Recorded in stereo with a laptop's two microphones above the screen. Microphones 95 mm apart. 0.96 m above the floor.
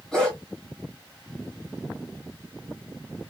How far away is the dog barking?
About 2 m.